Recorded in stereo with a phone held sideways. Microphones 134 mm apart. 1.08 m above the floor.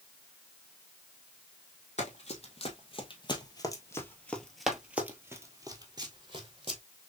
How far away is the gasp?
I don't hear a gasp.